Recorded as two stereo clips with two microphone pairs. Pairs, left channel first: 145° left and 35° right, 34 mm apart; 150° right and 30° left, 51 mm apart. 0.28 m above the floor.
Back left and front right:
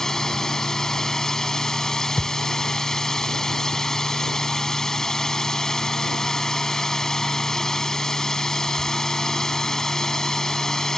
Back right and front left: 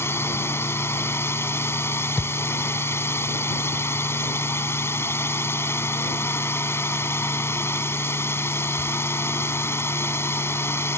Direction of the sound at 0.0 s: 145° right.